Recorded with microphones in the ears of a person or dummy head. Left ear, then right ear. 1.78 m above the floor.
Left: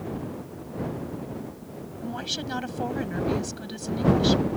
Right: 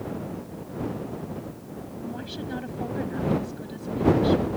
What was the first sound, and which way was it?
A woman speaking, 45° left (ahead or behind).